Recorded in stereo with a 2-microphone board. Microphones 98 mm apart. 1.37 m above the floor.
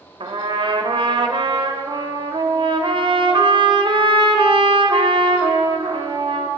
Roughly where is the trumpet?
Right.